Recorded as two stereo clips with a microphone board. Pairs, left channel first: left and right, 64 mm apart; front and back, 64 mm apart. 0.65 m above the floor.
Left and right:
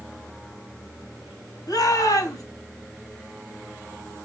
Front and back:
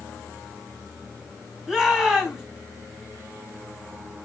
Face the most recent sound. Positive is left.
turn(degrees=100)